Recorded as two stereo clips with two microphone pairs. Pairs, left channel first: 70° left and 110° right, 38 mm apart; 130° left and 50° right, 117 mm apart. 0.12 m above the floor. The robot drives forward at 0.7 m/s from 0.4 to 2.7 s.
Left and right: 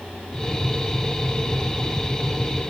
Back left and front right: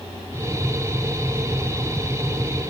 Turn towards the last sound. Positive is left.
No sound to turn to.